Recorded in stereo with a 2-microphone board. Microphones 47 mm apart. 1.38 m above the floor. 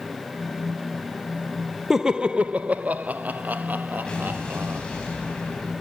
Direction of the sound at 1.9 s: 10° right (ahead or behind).